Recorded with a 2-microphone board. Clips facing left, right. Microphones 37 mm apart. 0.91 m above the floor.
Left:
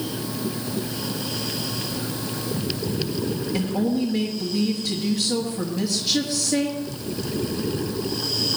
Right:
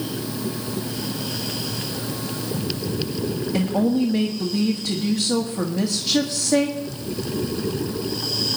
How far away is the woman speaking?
About 1.6 m.